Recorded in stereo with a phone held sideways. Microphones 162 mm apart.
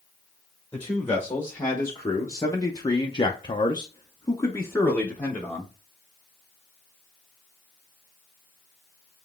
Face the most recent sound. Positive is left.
turn(degrees=10)  # may be behind; listen again after turning